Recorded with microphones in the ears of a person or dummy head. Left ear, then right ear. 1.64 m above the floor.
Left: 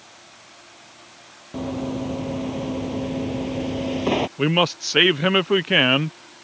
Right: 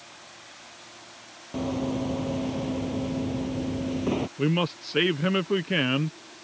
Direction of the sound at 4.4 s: 30° left (ahead or behind).